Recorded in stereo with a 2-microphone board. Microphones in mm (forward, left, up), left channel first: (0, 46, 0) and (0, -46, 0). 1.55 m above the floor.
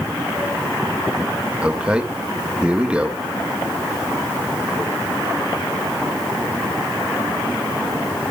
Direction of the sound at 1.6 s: 10° right (ahead or behind).